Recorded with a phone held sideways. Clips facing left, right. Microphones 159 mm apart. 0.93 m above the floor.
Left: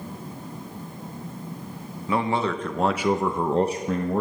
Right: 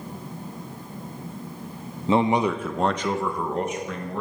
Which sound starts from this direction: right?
A man speaking, at 2.1 s.